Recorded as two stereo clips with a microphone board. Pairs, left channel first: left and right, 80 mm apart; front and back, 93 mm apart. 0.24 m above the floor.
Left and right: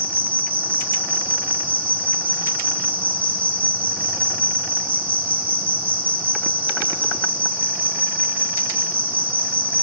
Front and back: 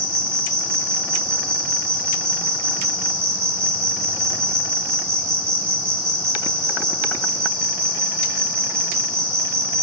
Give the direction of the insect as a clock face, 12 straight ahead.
5 o'clock.